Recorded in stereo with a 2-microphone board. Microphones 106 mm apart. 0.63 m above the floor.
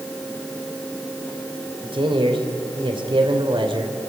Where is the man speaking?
50° right (ahead or behind), 2 m.